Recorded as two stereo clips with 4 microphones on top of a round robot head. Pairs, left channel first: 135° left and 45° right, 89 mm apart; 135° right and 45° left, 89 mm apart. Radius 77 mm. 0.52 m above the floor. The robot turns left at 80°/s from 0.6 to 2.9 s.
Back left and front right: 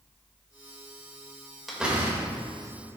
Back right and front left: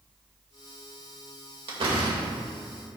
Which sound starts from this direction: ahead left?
A door slam, at 1.7 s.